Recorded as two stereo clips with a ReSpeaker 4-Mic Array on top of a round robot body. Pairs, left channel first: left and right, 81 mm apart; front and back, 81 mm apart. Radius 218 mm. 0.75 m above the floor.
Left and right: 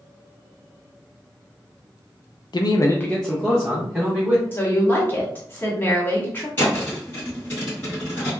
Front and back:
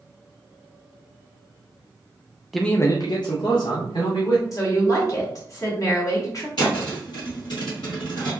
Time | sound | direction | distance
2.5 | a man speaking | 90° left | 0.6 m
4.5 | a woman speaking | 35° left | 1.3 m
6.6 | a thud | 25° left | 1.0 m